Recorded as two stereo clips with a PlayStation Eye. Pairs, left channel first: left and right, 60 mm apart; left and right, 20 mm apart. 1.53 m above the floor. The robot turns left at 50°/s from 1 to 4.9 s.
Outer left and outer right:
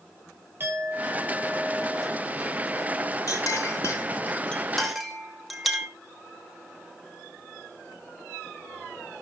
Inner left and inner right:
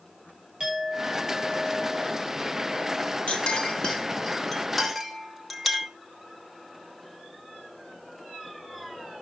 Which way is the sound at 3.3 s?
75° left (ahead or behind).